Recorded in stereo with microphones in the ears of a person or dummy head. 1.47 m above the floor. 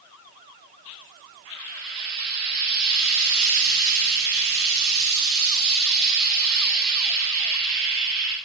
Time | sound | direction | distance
1.4 | frying | 45° right (ahead or behind) | 2.5 m